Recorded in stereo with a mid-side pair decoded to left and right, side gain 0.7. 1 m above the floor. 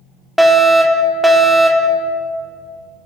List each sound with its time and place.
0.4 s a fire alarm: 5° right, 4 m